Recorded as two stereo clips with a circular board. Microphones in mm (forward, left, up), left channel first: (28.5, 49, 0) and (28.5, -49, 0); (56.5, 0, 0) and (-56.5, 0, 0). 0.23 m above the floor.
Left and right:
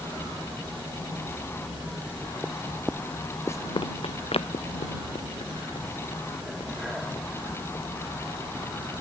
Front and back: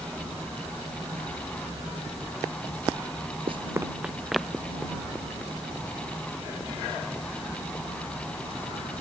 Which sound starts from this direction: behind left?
Running footsteps, at 3.5 s.